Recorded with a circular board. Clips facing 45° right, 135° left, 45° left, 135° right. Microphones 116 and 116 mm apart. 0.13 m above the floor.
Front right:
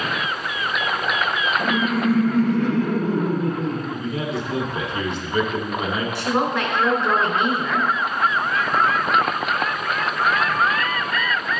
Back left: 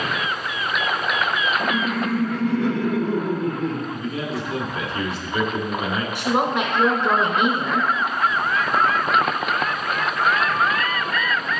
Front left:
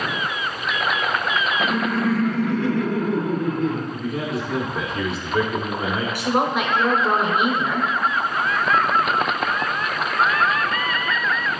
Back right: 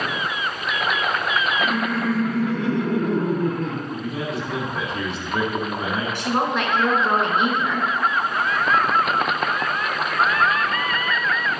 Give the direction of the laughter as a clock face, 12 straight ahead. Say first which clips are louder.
Front right 2 dB, front left 1 dB; 1 o'clock.